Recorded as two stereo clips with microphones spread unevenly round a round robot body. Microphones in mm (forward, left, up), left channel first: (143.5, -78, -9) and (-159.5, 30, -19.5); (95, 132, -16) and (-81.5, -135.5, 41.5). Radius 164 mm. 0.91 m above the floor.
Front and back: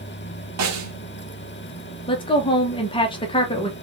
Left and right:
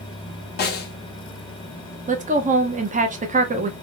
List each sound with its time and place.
0.6 s a snare drum: 115° left, 1.4 m
2.1 s a woman speaking: 70° right, 0.9 m